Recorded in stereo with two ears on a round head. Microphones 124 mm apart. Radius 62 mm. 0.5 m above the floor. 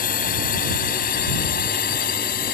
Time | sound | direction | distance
0.0 | a drone | 70° left (ahead or behind) | ?